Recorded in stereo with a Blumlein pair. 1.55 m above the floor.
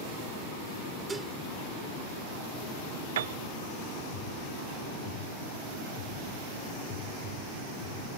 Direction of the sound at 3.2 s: 60° right.